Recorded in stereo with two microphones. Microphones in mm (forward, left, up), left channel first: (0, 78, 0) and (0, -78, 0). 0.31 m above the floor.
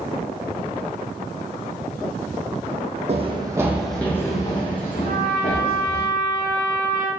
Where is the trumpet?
65° right (ahead or behind), 0.7 m.